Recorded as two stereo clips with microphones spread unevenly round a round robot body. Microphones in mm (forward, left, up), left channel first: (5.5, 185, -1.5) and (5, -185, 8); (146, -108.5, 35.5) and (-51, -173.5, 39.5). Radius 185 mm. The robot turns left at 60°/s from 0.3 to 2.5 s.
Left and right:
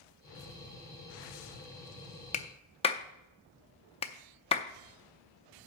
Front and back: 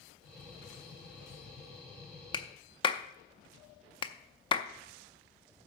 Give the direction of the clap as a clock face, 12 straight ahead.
10 o'clock.